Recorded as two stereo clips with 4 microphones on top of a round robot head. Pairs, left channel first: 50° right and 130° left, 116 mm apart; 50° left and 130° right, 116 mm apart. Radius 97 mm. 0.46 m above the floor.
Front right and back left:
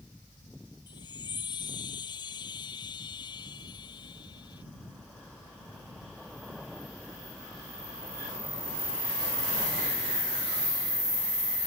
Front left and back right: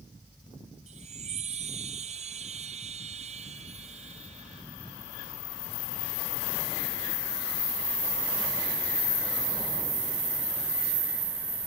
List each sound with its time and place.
0.9 s a chime: 105° right